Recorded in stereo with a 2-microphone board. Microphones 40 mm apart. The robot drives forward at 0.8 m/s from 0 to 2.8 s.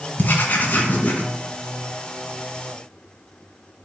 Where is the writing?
45° left (ahead or behind), 2 m; by 1.2 s 35° left (ahead or behind), 2.5 m.